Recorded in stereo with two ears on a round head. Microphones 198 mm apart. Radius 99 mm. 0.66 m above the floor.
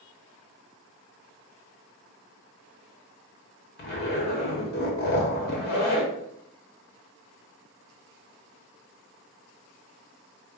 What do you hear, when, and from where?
3.8 s a zipper: 50° left (ahead or behind), 1.2 m